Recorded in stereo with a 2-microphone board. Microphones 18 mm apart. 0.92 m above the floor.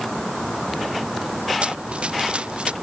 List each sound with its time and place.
1.6 s running footsteps: 80° right